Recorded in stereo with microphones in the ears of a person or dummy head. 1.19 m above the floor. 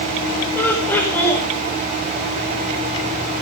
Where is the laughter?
15° left (ahead or behind), 5 m.